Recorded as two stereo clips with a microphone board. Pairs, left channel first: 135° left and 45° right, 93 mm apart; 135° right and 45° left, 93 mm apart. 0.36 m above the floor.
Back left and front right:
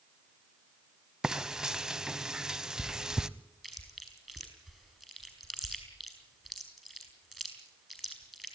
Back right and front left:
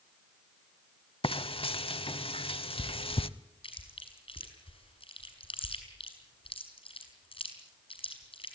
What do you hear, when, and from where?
1.2 s frying: 130° right, 0.8 m
3.6 s chewing: 135° right, 5.5 m